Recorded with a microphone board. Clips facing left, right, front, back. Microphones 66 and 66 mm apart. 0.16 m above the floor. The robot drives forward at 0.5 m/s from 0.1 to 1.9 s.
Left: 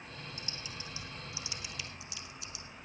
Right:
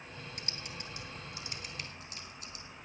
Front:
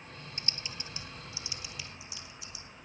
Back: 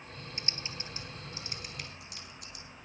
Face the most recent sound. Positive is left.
turn(degrees=-140)